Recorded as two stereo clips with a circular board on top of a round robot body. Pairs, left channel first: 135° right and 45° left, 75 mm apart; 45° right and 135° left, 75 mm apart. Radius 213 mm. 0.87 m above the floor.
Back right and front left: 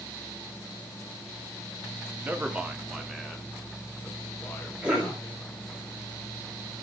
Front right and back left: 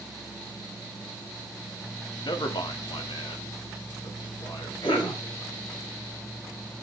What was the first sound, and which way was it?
A man speaking, 20° right.